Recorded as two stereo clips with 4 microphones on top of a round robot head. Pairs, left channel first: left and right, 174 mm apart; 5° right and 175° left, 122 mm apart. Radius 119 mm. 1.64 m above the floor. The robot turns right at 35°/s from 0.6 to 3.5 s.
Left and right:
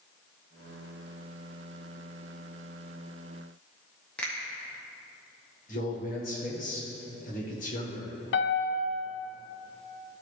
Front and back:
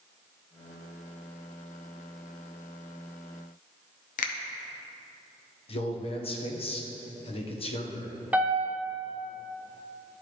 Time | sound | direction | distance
4.2 | a finger snap | 5° left | 0.7 m
5.7 | a man speaking | 35° left | 1.2 m
8.3 | a piano | 95° left | 0.7 m